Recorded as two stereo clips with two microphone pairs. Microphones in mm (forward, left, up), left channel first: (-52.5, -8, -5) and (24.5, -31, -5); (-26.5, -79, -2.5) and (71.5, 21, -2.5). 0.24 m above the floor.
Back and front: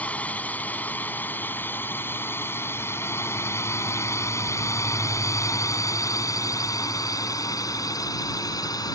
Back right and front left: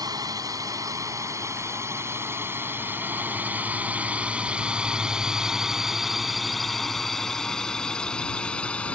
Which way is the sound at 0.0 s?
95° left.